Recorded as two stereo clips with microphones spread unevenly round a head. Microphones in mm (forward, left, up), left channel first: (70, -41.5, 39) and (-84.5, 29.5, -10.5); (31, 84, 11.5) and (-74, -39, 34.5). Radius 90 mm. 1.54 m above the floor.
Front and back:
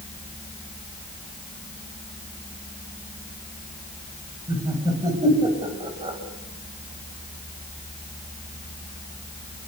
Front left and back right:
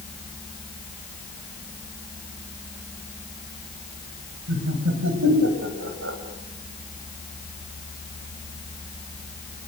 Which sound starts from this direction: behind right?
Laughter, at 4.5 s.